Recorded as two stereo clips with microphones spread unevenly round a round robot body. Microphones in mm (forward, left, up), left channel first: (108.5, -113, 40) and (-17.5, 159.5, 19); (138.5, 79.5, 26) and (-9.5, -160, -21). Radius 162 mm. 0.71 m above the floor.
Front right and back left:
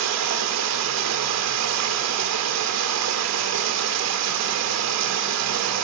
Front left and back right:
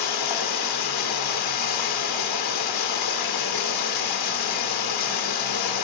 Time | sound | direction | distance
0.0 | running water | 80° left | 1.7 m